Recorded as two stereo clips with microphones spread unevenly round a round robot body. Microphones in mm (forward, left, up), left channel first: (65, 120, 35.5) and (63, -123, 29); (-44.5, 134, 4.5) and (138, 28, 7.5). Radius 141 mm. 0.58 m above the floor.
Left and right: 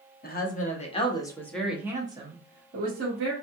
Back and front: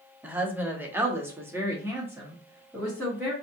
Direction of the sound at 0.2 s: 50° left.